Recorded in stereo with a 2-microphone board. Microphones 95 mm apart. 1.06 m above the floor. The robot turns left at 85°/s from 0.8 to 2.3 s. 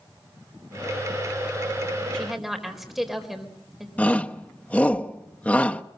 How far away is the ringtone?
I don't hear a ringtone.